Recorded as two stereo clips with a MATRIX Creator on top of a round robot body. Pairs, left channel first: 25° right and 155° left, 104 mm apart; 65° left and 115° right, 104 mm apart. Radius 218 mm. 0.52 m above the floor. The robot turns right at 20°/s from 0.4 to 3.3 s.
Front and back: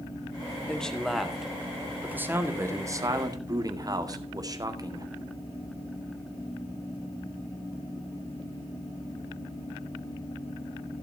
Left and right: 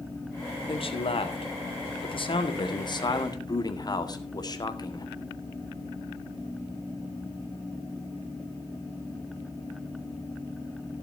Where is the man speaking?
60° left, 2 m; by 5.1 s 110° left, 2 m.